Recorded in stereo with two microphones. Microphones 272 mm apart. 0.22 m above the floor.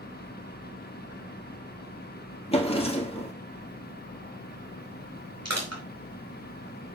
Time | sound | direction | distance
2.5 | a drawer | 20° left (ahead or behind) | 1.8 m
5.5 | crushing | 70° right (ahead or behind) | 4.5 m